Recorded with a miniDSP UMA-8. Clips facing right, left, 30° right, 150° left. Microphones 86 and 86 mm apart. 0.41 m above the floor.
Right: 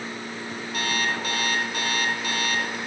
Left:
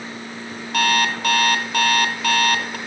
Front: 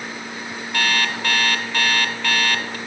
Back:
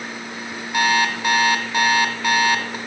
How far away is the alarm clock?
About 1.5 m.